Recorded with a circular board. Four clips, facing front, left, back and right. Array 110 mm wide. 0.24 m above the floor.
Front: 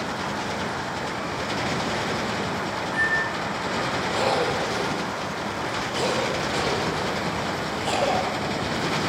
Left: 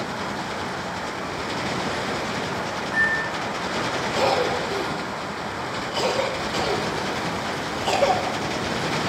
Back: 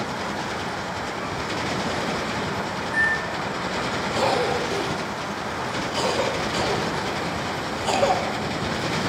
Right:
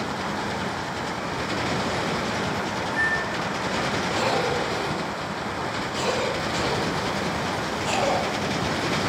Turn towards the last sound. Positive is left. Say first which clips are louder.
# left 4 dB, back 2 dB
turn(degrees=75)